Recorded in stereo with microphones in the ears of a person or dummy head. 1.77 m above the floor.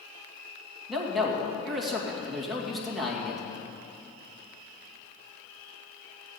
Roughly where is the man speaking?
Centre.